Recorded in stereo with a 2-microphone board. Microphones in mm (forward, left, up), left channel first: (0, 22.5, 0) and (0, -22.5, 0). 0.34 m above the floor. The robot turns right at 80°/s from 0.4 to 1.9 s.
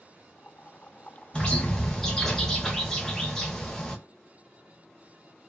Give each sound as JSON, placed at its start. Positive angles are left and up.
{"t": 1.3, "sound": "a bird", "side_deg": 20, "distance_m": 0.8}